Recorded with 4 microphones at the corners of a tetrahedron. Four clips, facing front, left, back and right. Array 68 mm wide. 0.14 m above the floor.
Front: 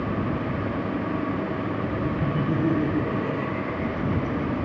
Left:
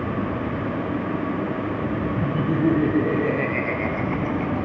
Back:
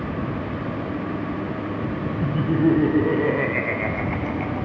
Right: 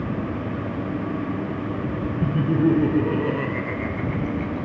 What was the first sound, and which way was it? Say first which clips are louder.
Laughter: right 2 dB, back 6 dB; 135° right.